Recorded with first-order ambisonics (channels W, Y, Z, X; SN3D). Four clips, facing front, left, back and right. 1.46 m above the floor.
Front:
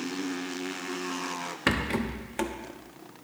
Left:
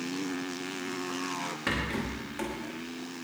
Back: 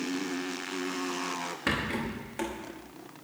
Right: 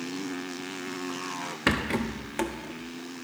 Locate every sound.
1.7 s a rattle: 60° right, 1.0 m